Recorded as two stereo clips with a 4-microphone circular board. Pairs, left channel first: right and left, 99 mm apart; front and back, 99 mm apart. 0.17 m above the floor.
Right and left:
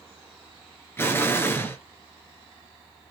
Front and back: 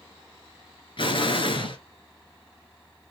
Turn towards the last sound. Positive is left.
turn(degrees=-25)